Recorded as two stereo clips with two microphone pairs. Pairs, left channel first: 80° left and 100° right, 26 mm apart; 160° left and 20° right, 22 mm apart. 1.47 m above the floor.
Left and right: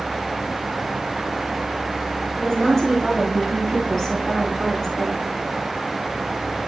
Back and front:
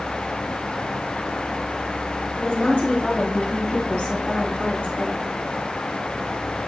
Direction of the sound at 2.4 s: 150° left.